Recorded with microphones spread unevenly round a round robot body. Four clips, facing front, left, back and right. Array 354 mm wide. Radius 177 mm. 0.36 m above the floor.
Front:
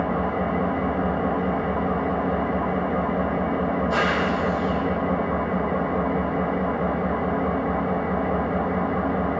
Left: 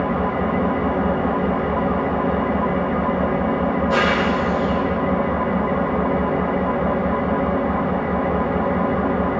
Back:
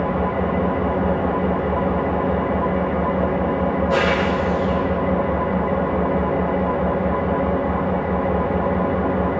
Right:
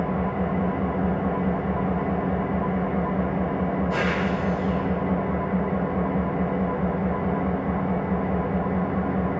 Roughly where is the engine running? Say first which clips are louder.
Left 5 dB, back 3 dB; behind left.